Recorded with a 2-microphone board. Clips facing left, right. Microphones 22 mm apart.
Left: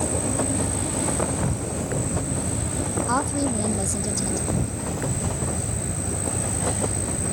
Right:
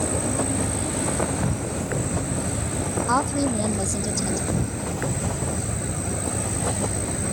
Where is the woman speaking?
20° right (ahead or behind).